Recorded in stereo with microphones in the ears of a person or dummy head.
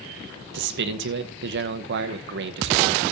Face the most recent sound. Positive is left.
turn(degrees=-60)  # may be behind; listen again after turning